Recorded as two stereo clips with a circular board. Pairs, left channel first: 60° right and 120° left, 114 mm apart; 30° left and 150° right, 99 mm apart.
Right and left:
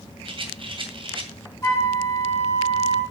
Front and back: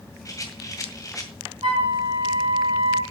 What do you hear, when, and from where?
0.2 s a rattle: 85° left, 2 m
1.6 s a flute: 120° right, 3 m